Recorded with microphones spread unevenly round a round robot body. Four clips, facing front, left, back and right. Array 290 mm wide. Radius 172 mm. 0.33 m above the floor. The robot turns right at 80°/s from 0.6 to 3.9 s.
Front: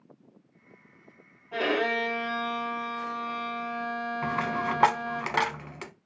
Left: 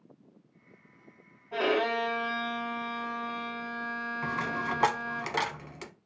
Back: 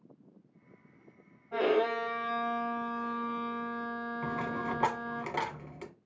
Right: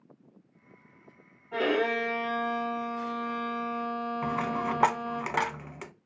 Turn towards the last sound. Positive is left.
turn(degrees=-20)